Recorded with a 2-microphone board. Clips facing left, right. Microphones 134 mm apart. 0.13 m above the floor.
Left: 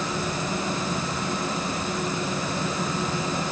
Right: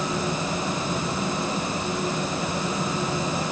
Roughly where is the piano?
No piano in this recording.